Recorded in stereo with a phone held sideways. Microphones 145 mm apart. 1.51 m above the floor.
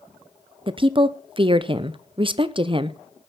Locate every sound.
0.7 s a woman speaking: 35° right (ahead or behind), 0.6 m